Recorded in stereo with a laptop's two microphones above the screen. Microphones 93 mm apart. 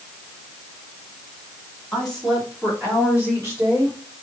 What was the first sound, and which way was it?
A woman speaking, 5° left (ahead or behind).